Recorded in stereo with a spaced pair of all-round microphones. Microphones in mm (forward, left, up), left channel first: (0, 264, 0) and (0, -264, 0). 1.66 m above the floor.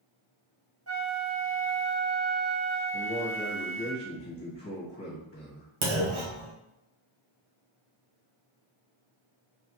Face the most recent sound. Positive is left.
turn(degrees=-65)  # may be behind; listen again after turning